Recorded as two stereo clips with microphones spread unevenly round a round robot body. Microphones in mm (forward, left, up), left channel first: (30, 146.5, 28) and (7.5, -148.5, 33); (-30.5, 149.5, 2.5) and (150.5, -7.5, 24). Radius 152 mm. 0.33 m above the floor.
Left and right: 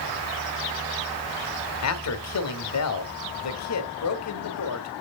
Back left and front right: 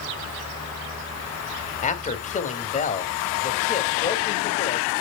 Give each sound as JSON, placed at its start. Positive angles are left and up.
{"t": 1.8, "sound": "a man speaking", "azimuth_deg": 90, "distance_m": 2.5}